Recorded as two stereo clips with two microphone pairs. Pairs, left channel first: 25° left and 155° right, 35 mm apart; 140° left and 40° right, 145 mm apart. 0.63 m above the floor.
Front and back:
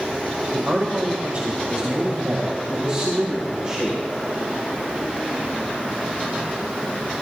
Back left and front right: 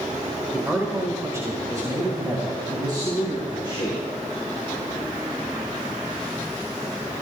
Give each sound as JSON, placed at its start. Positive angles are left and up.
{"t": 0.5, "sound": "a man speaking", "azimuth_deg": -120, "distance_m": 2.0}